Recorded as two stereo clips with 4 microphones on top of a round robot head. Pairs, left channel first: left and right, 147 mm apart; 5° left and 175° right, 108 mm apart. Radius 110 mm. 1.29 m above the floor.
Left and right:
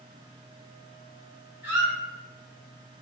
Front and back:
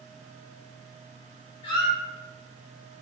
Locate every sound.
1.6 s a squeak: 20° right, 0.6 m